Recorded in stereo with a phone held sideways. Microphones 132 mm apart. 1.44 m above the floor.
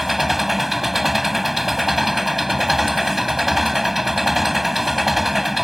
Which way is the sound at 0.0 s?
Centre (ahead or behind).